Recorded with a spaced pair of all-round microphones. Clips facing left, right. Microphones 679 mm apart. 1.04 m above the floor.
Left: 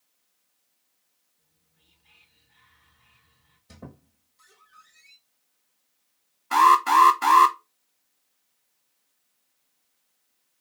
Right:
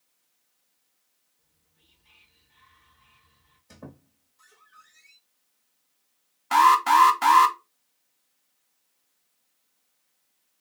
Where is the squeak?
50° left (ahead or behind), 1.7 m.